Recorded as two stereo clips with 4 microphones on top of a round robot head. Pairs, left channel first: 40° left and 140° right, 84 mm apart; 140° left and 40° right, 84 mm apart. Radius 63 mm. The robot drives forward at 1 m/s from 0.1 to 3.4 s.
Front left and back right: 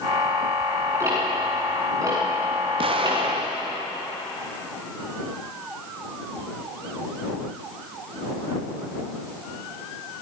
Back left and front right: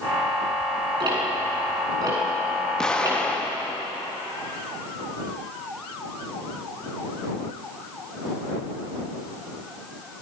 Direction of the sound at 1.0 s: 80° right.